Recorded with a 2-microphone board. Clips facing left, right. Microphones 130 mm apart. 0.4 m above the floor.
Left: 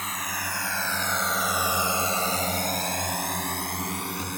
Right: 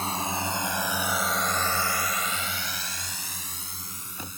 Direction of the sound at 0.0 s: 30° right (ahead or behind).